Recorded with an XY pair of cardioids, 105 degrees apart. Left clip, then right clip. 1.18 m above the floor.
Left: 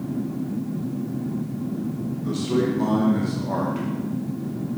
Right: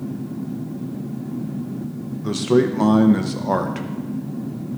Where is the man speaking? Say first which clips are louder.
Right 6 dB; 65° right, 0.9 m.